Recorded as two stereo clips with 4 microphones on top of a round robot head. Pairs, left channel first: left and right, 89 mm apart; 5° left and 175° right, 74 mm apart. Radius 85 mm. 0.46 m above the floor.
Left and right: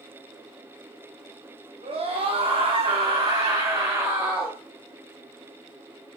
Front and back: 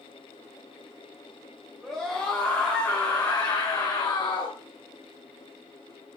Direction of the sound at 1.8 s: 85° right.